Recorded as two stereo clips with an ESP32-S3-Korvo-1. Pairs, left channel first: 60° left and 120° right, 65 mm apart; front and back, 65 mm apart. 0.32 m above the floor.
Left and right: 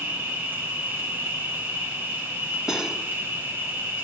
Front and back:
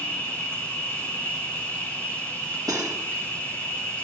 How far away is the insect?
About 2 m.